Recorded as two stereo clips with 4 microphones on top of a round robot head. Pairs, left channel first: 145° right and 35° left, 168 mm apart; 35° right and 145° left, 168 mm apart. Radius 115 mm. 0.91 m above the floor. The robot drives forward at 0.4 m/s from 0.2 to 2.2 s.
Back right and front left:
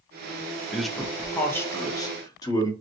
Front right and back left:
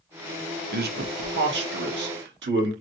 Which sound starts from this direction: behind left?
A man speaking, at 0.7 s.